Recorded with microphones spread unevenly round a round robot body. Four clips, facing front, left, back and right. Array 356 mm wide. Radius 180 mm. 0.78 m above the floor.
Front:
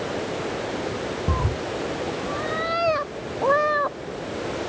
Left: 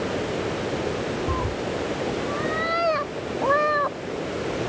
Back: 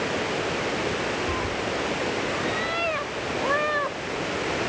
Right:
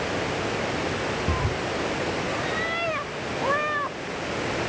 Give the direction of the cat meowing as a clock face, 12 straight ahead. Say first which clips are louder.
Left 1 dB, front 1 dB; 12 o'clock.